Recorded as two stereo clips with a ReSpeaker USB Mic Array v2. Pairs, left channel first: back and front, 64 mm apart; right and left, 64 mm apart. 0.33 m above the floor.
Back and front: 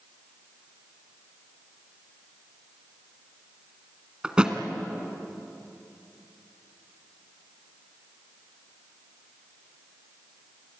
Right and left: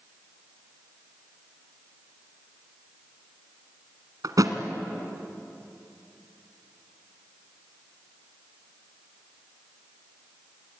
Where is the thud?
75° left, 1.7 m.